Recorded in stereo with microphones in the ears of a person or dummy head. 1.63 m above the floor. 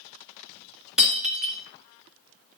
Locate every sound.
1.0 s breaking glass: centre (ahead or behind), 2.5 m